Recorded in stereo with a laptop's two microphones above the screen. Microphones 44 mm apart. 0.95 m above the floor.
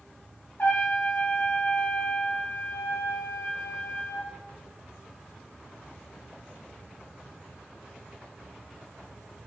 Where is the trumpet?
55° left (ahead or behind), 1.3 m.